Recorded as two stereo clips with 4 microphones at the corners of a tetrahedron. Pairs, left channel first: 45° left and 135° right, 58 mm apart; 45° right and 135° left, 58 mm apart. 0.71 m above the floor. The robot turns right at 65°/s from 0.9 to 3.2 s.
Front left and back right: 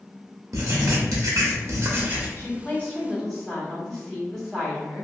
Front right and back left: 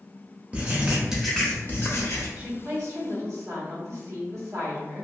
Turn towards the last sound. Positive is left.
turn(degrees=125)